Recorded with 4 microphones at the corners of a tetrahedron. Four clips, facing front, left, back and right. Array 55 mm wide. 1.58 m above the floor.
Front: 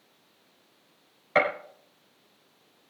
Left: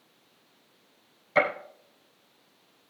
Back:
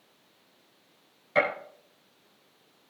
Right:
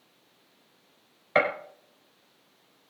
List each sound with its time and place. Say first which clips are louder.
1.4 s a gunshot: even, front 2 dB; 55° right, 4.5 m